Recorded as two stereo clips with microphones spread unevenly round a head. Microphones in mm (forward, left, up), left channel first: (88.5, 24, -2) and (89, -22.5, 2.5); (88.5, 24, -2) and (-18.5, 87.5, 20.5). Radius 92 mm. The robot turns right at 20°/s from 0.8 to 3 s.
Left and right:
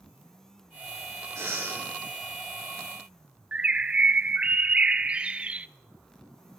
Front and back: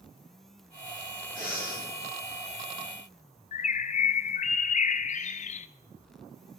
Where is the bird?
40° right, 0.5 m.